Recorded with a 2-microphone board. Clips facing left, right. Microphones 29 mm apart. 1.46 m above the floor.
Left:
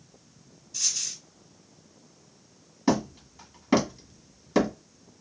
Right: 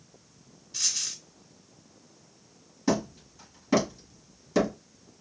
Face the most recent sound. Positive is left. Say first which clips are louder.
# left 2 dB
turn(degrees=20)  # may be behind; listen again after turning